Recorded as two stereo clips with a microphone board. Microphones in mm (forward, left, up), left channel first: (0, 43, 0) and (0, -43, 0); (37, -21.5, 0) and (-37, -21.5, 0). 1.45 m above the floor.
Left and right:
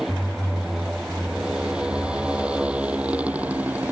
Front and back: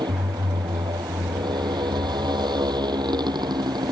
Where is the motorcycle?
175° right; by 3.9 s 160° right.